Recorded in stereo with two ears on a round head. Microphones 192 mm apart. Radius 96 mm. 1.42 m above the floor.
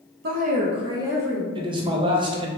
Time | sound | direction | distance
0.2 | a woman speaking | 45° right (ahead or behind) | 0.5 m
1.6 | a man speaking | 20° right (ahead or behind) | 0.6 m